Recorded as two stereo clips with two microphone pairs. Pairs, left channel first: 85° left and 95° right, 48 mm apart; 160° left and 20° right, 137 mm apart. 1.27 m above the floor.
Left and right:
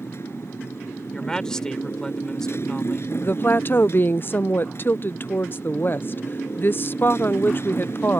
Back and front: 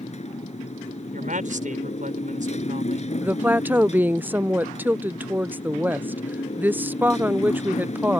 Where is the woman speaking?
55° left.